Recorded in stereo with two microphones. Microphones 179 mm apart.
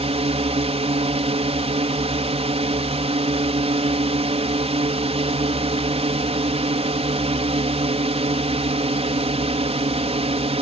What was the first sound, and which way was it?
A drone, 35° right (ahead or behind).